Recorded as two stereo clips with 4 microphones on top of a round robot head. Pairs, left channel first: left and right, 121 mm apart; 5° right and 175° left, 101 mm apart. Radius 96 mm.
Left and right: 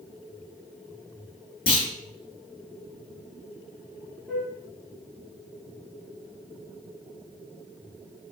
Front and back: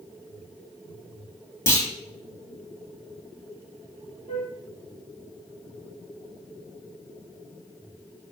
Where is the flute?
5° left, 1.6 m.